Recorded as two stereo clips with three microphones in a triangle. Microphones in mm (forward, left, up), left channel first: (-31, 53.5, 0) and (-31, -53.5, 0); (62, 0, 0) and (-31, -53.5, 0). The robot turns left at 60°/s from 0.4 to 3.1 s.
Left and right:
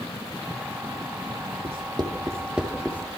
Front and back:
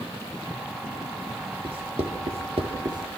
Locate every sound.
1.6 s writing: 115° right, 4.5 m; by 3.2 s 160° left, 4.5 m